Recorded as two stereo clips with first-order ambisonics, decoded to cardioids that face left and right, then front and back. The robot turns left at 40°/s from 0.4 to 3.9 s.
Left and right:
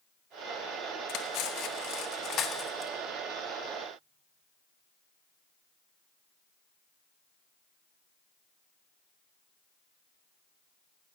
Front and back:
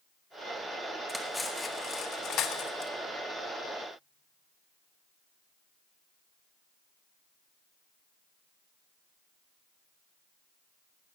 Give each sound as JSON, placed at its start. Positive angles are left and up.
{"t": 1.1, "sound": "cutlery clinking", "azimuth_deg": 95, "distance_m": 1.1}